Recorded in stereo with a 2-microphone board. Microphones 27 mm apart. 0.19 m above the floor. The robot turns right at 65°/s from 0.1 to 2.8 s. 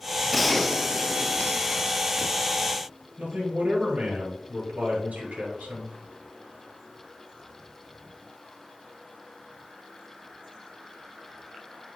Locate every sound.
0.3 s a gunshot: 10° right, 0.6 m; by 2.0 s 105° left, 0.6 m
3.2 s a man speaking: 65° right (ahead or behind), 4 m